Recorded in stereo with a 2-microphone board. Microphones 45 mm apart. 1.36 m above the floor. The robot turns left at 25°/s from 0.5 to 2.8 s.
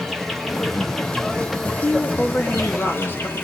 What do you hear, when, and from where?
0.0 s an insect: 175° left, 2.5 m; by 3.4 s 120° left, 2.5 m
1.6 s a woman speaking: 25° left (ahead or behind), 3 m; by 3.3 s 55° left (ahead or behind), 3 m